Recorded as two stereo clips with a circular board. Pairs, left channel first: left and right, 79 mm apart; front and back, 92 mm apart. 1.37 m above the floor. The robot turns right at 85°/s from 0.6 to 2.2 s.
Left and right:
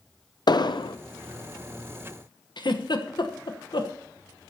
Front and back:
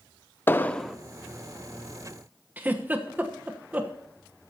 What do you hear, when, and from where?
0.5 s an explosion: 65° left, 0.6 m; by 1.0 s 100° left, 0.6 m
2.6 s a giggle: 110° left, 1.0 m